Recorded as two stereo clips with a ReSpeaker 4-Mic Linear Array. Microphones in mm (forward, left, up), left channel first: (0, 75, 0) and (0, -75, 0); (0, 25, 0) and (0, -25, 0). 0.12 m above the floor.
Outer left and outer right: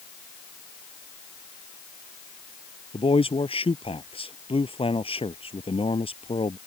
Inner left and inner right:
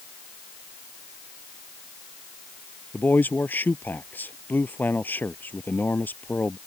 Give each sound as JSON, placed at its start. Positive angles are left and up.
{"t": 2.9, "sound": "a man speaking", "side_deg": 40}